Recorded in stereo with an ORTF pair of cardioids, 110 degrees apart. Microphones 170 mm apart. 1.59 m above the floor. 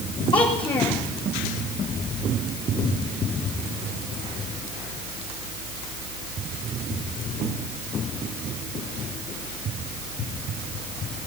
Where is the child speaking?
30° left, 1.8 m.